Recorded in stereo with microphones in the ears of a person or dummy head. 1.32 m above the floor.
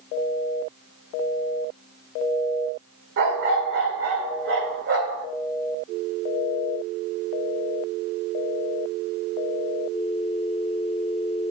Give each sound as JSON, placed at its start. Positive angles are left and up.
{"t": 3.2, "sound": "a dog barking", "side_deg": -60, "distance_m": 1.7}